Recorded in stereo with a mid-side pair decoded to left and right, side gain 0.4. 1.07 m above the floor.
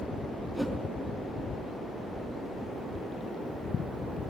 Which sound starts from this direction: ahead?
A whoosh, at 0.5 s.